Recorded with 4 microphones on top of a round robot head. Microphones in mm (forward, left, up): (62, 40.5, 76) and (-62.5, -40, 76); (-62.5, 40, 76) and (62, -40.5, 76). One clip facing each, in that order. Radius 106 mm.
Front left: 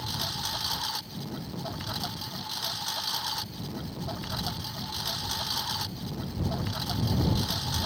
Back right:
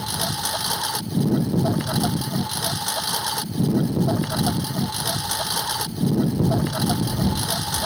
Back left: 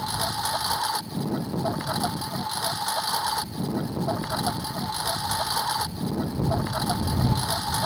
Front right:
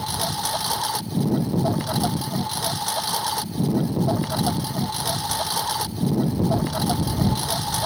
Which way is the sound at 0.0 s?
105° right.